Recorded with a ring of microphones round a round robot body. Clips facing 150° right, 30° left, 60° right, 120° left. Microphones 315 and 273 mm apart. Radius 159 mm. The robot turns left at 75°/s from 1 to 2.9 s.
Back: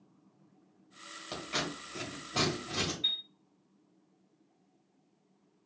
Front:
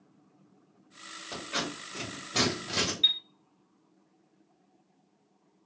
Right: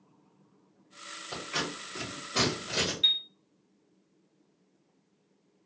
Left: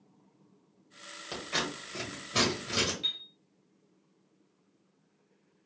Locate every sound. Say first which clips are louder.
1.3 s scissors: front 2 dB, even; 155° left, 2 m; by 2.9 s 35° left, 2 m
3.0 s a chime: front 2 dB, right 1 dB; 5° left, 1.1 m